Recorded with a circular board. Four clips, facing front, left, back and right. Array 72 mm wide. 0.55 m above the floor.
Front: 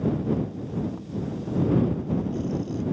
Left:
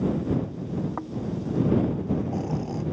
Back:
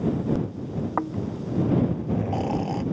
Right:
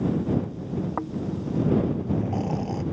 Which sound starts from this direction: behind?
Snoring, at 1.0 s.